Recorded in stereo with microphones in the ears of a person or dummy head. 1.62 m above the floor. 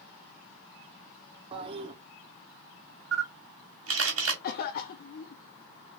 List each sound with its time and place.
1.5 s a toilet flushing: 35° right (ahead or behind), 0.7 m
3.1 s a camera shutter: 80° right, 1.7 m
4.4 s a cough: 60° left (ahead or behind), 0.6 m